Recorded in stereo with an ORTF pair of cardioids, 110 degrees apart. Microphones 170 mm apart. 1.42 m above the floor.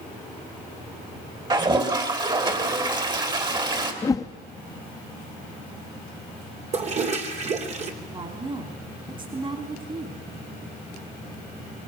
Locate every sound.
1.5 s a toilet flushing: 25° right, 3 m
4.0 s a whoosh: 20° left, 1.6 m
6.7 s a toilet flushing: 40° right, 3 m
8.1 s a woman speaking: 30° right, 3.5 m